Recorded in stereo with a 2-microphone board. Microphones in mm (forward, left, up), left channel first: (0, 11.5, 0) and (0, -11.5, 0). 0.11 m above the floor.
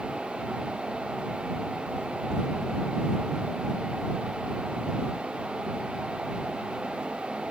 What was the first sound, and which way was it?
Only background noise.